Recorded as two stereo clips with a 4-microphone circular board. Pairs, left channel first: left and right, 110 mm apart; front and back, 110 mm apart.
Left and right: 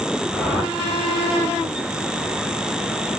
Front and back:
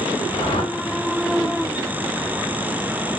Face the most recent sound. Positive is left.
turn(degrees=-20)